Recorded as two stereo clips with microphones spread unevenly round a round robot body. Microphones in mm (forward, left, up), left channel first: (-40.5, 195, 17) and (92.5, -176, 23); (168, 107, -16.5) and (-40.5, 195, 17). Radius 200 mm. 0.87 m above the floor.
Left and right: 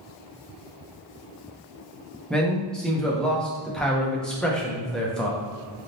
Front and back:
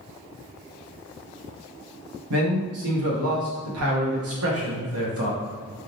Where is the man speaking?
160° right, 0.6 m.